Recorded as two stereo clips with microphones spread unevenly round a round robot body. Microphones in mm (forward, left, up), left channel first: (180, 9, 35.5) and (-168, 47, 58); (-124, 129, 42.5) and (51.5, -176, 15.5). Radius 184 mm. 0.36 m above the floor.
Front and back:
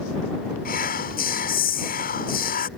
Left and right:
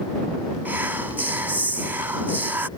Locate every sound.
0.7 s whispering: 10° left